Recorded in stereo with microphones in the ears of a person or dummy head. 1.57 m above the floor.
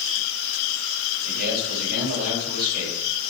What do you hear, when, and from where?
1.2 s a man speaking: 55° right (ahead or behind), 9 m